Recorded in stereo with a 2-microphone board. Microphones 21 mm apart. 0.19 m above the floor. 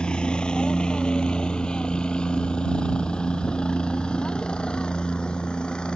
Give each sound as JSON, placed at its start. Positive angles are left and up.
{"t": 0.0, "sound": "a helicopter", "side_deg": 50}